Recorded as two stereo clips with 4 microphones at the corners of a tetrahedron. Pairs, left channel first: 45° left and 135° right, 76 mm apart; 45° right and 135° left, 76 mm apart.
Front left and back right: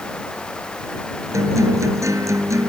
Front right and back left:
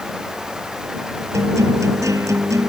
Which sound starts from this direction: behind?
A guitar, at 1.3 s.